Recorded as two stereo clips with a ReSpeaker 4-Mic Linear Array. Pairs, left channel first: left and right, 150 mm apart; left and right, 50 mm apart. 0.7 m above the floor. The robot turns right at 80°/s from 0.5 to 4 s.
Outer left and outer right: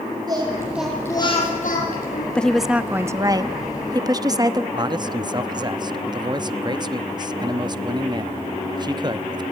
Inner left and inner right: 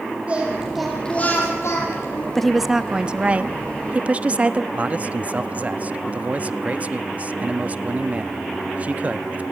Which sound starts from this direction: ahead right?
Singing, at 0.3 s.